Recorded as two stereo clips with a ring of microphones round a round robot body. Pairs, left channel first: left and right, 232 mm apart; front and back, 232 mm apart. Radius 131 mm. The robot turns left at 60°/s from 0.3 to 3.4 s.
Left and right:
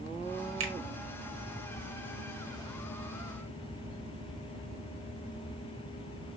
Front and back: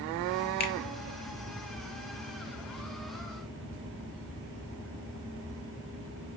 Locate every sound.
0.6 s a finger snap: 50° right, 1.1 m; by 0.7 s 60° right, 1.1 m